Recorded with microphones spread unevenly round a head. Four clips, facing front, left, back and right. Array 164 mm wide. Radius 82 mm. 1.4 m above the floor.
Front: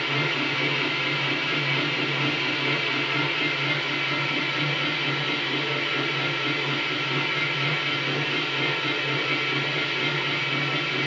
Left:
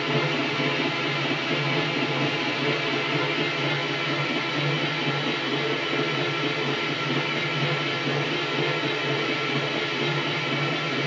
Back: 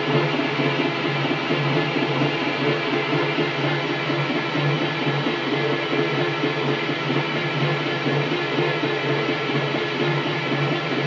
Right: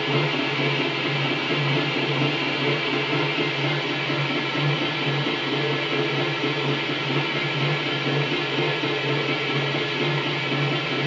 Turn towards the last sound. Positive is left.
turn(degrees=-175)